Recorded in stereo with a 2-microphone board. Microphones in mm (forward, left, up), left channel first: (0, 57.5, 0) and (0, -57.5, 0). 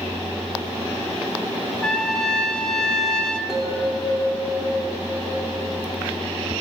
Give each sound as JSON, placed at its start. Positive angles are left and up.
{"t": 1.8, "sound": "a trumpet", "side_deg": 5, "distance_m": 1.1}
{"t": 3.5, "sound": "a bell", "side_deg": -5, "distance_m": 2.0}